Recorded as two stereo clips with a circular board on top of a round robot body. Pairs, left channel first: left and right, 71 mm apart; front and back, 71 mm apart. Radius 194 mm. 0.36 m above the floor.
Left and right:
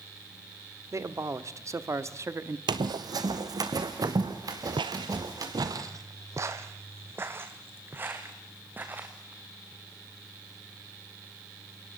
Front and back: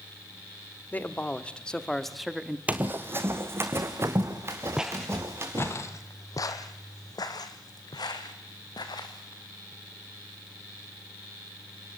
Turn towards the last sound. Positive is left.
turn(degrees=-25)